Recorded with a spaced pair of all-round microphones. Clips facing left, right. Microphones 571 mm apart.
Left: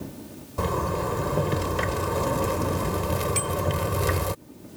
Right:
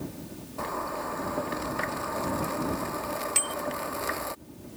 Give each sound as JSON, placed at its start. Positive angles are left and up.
{"t": 0.6, "sound": "a zipper", "side_deg": 85}
{"t": 3.4, "sound": "a bicycle bell", "side_deg": -25}